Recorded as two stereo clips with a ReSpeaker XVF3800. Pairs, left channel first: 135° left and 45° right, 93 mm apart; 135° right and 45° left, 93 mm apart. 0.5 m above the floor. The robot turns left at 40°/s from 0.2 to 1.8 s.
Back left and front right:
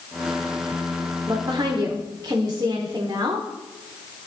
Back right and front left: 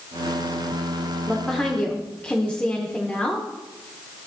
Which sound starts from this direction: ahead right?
A woman speaking, at 1.3 s.